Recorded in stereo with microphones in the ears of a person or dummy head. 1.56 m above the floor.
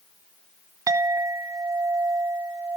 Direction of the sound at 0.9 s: 20° right (ahead or behind).